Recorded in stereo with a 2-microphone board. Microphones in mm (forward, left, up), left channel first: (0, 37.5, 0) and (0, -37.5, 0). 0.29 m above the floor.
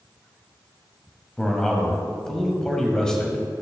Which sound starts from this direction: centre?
A man speaking, at 1.4 s.